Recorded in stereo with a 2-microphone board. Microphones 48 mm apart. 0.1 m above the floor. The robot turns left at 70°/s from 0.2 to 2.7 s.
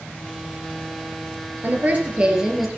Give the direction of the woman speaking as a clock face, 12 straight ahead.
4 o'clock.